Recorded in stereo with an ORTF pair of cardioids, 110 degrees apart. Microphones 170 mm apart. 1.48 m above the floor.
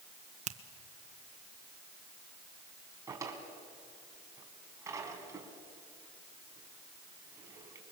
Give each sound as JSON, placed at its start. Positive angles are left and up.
{"t": 0.5, "sound": "a finger snap", "azimuth_deg": -40, "distance_m": 1.4}
{"t": 3.1, "sound": "a drawer", "azimuth_deg": -20, "distance_m": 4.0}